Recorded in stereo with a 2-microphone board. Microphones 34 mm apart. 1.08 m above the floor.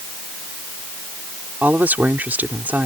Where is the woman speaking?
65° right (ahead or behind).